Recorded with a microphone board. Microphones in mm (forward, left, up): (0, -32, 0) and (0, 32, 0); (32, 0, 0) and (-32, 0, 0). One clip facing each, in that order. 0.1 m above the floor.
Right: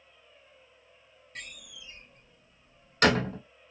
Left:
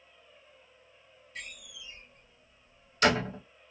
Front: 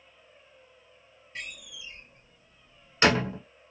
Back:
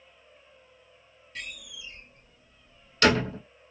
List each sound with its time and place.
1.4 s a door slam: 60° right, 2.5 m